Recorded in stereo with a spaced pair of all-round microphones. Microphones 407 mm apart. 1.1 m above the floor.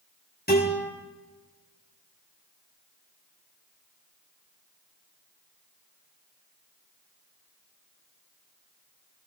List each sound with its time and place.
0.5 s a guitar: 25° left (ahead or behind), 8 m